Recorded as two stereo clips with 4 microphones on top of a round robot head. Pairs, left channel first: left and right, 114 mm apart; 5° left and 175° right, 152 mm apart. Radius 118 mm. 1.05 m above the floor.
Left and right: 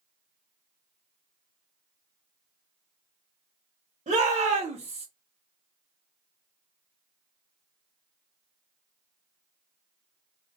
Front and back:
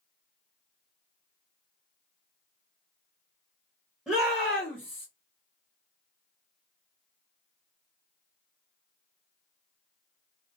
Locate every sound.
4.1 s a shout: 90° right, 1.5 m; by 5.1 s 70° right, 1.1 m